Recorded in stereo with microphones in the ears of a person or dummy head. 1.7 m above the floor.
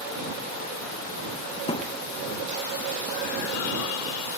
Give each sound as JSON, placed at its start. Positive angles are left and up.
{"t": 1.7, "sound": "a thud", "side_deg": 30}